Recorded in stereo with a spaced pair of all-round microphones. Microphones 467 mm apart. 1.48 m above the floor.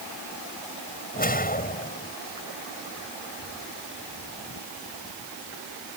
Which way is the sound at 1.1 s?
20° left (ahead or behind).